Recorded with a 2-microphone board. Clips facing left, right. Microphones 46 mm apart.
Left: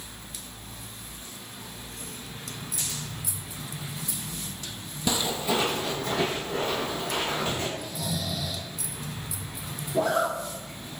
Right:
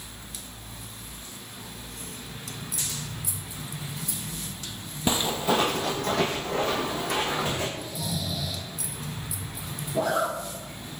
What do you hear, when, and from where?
5.1 s footsteps: 30° right (ahead or behind), 0.5 m; by 7.7 s 65° right (ahead or behind), 1.5 m
7.8 s snoring: 55° left (ahead or behind), 0.9 m
9.9 s a zipper: centre (ahead or behind), 0.5 m